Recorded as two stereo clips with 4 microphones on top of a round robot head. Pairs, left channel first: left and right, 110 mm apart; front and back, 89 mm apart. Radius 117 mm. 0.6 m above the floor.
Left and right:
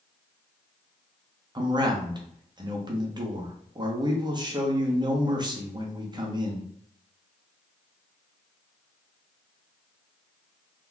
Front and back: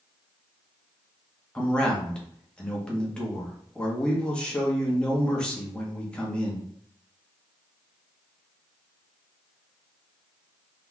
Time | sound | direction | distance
1.6 | a man speaking | 75° right | 1.1 m